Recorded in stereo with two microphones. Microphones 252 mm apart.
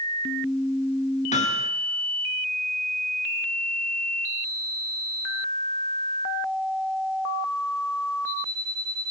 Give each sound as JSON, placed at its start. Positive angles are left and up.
{"t": 1.3, "sound": "hammering", "side_deg": 30, "distance_m": 3.0}